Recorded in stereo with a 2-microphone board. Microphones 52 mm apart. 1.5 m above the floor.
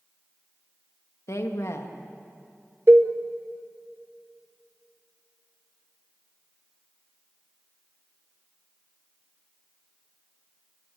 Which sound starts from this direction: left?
A woman speaking, at 1.3 s.